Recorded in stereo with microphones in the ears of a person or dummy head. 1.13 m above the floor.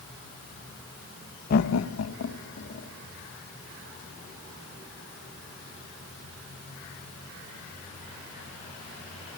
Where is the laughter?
45° left (ahead or behind), 0.6 m; by 2.9 s 60° left (ahead or behind), 2 m.